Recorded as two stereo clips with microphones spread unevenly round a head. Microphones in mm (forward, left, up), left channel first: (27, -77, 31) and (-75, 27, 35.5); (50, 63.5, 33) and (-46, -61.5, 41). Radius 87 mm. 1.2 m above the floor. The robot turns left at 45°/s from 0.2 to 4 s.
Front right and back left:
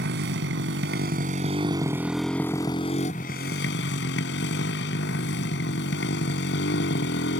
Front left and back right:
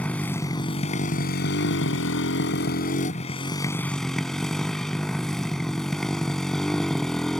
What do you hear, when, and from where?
0.0 s a motorcycle: 135° left; by 7.4 s 35° right